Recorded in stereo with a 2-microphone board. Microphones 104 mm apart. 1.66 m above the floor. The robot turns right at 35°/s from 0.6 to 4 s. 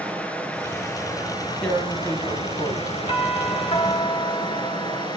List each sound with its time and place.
0.0 s running water: 15° left, 5.5 m; by 5.2 s 135° left, 5.5 m
1.6 s tearing paper: 10° left, 4.5 m; by 2.8 s 50° left, 4.5 m
3.1 s a doorbell: 55° left, 2.5 m; by 5.1 s 85° left, 2.5 m